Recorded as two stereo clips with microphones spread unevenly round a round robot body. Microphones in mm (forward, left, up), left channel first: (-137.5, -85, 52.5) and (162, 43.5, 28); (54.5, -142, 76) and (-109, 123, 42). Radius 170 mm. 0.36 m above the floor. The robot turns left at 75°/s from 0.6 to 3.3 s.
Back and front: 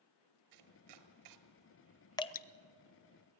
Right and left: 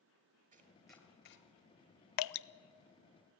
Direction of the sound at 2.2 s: 75° right.